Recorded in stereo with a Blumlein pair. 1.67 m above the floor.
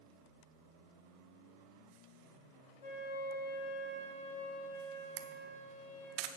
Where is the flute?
55° left, 3 m.